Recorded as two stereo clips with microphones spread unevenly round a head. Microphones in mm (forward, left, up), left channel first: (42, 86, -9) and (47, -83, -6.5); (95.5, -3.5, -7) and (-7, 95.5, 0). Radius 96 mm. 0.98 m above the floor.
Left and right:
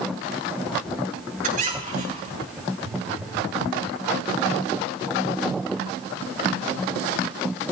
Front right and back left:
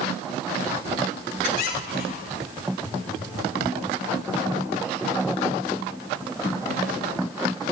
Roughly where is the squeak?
Ahead right.